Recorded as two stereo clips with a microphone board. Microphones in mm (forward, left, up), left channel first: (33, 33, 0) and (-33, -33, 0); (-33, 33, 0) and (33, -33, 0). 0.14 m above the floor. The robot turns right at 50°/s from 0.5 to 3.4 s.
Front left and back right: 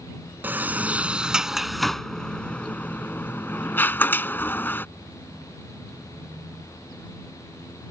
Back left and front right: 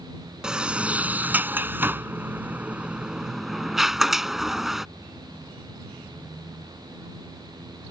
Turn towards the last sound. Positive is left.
turn(degrees=35)